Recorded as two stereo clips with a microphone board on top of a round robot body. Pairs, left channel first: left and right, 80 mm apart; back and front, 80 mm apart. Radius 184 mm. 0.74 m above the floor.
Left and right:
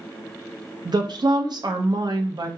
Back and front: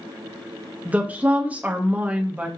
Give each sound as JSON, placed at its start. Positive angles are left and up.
{"t": 0.8, "sound": "a woman speaking", "azimuth_deg": -70, "distance_m": 0.7}